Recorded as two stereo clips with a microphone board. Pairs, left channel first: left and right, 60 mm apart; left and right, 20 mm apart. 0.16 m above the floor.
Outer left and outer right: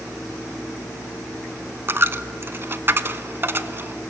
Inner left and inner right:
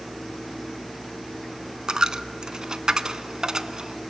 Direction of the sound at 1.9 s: 40° right (ahead or behind).